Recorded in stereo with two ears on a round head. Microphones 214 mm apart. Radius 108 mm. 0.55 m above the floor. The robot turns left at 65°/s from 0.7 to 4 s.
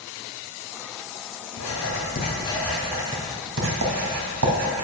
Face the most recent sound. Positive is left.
turn(degrees=-80)